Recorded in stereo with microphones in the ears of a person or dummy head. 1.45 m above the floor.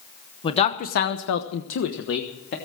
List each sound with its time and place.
0.4 s a man speaking: 35° left (ahead or behind), 1.1 m; by 2.5 s 50° left (ahead or behind), 1.6 m